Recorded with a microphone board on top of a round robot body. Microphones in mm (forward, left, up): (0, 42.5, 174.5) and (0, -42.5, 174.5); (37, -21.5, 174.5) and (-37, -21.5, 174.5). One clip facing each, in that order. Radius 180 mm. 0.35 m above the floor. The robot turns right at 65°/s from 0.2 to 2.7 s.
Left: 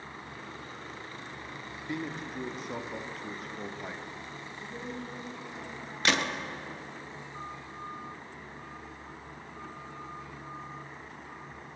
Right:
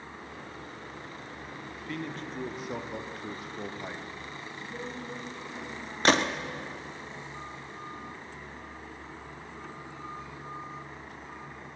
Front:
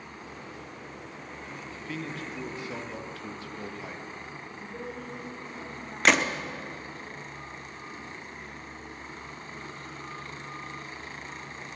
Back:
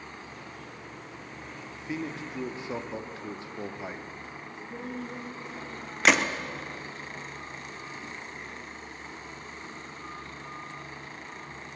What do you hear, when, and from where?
1.7 s a man speaking: 125° left, 1.0 m; by 4.1 s 175° right, 1.0 m
4.5 s a woman speaking: straight behind, 4.5 m
6.0 s a gunshot: 95° right, 1.0 m